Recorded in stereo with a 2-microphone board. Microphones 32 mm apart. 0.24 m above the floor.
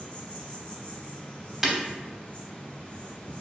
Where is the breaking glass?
5° right (ahead or behind), 0.6 m.